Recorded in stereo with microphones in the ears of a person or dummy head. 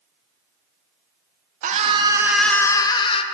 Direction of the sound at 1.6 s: 35° right (ahead or behind).